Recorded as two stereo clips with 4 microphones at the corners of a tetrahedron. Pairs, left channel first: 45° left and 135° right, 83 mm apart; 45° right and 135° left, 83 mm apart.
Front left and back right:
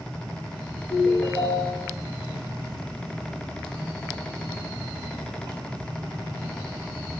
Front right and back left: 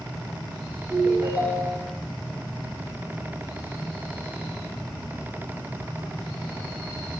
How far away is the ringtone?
About 4 m.